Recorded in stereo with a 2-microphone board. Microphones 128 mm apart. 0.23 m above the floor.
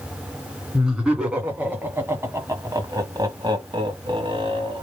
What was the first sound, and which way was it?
Laughter, 5° right (ahead or behind).